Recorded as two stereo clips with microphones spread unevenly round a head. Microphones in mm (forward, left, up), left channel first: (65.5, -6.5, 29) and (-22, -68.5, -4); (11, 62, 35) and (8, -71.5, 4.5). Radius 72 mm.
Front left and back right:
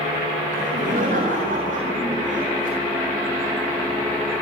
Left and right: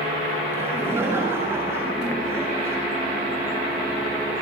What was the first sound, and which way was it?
Laughter, 165° right.